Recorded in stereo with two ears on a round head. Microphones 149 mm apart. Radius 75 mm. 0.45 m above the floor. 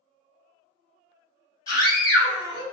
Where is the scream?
20° left (ahead or behind), 1.7 m.